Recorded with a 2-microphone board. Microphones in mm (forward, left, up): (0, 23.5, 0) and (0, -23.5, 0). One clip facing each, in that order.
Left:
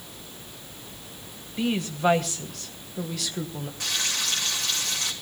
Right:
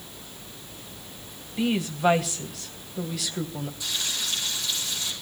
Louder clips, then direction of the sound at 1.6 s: Right 1 dB; 5° right (ahead or behind).